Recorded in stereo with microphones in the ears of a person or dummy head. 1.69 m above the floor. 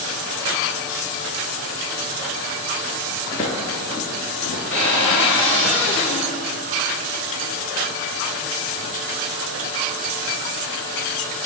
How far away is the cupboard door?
About 2.5 m.